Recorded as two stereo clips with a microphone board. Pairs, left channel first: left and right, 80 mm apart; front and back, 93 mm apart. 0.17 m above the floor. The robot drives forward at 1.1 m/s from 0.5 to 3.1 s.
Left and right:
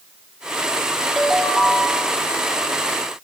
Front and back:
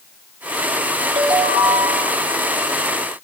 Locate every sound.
1.2 s a ringtone: straight behind, 2 m